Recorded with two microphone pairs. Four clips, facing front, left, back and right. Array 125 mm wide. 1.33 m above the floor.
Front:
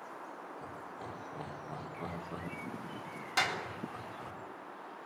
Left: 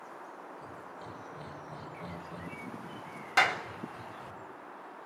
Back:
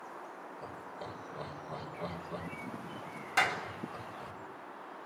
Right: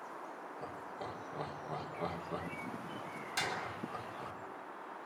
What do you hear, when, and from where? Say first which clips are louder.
0.6 s laughter: right 2 dB, back 1 dB; 80° right, 5 m
3.4 s a clap: left 11 dB, back 3 dB; 95° left, 3 m